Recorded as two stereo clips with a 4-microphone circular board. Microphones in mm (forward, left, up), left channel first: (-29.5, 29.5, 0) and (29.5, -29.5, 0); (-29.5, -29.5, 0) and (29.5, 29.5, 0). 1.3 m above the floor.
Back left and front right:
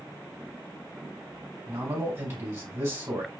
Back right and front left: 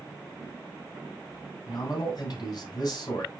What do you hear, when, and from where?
1.6 s a man speaking: 100° right, 5 m